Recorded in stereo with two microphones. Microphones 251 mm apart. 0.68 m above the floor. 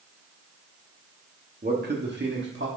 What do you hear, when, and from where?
1.6 s a man speaking: 40° right (ahead or behind), 1.4 m; by 2.7 s 50° right (ahead or behind), 1.7 m